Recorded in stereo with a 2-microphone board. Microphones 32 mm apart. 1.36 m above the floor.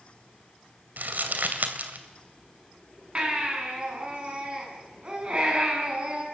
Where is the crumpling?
65° right (ahead or behind), 2.5 m.